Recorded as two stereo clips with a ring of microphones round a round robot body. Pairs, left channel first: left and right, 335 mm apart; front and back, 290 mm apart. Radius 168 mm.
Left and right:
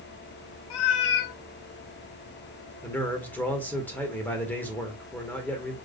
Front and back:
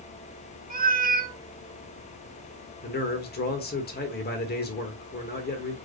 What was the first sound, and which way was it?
A cat meowing, 115° left.